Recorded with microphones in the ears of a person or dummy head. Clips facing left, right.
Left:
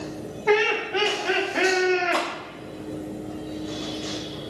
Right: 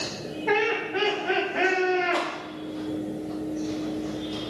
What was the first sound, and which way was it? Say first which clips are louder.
Laughter: left 4 dB; 55° left (ahead or behind).